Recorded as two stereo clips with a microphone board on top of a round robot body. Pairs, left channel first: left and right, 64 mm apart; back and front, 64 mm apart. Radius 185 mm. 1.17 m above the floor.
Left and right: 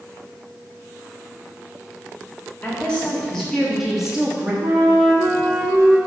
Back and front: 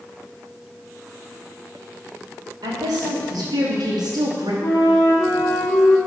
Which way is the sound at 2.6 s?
20° left.